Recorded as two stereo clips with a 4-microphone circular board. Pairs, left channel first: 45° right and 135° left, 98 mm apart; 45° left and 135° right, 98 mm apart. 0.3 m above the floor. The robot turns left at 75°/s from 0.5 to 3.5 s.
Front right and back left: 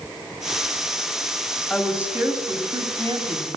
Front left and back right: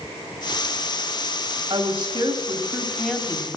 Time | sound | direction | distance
1.7 | a woman speaking | 125° right | 1.8 m